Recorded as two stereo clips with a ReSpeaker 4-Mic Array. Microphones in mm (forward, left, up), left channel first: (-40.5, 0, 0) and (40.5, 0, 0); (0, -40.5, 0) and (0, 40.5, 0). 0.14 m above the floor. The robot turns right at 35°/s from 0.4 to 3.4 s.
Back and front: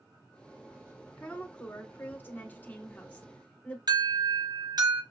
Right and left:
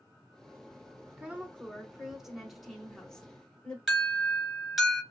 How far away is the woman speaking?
About 1.1 m.